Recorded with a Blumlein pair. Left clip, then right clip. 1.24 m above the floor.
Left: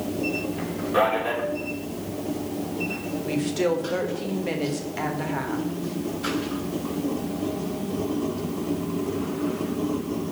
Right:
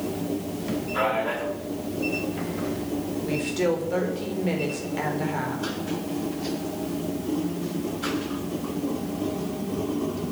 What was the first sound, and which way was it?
A man speaking, 50° left.